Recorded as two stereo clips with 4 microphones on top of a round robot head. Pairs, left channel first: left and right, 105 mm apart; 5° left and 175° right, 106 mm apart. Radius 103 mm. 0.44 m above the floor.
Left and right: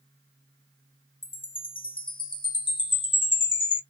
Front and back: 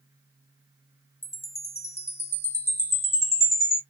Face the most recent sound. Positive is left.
turn(degrees=65)